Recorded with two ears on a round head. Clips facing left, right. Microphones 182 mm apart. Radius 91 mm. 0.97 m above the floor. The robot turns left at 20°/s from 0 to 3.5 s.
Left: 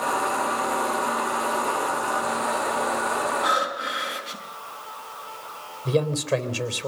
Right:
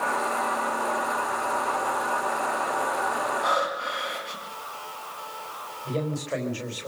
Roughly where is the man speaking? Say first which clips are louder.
Left 6 dB; left.